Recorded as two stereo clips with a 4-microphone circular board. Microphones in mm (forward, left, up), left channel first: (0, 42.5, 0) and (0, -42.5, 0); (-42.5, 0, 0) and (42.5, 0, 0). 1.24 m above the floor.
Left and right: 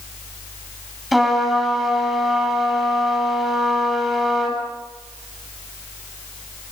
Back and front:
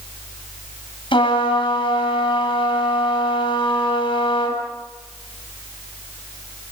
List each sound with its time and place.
1.1 s a trumpet: straight behind, 9 m